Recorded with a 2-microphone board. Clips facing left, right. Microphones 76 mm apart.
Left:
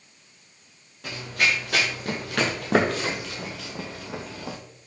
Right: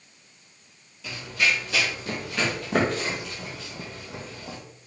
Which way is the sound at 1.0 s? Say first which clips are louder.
Left 1 dB; 45° left (ahead or behind).